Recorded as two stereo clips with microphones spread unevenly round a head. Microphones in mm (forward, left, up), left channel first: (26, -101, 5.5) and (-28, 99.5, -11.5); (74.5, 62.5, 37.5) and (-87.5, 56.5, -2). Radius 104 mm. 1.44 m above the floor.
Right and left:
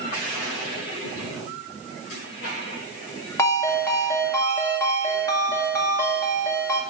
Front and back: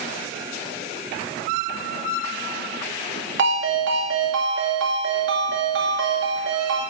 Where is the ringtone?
150° right, 2.5 m.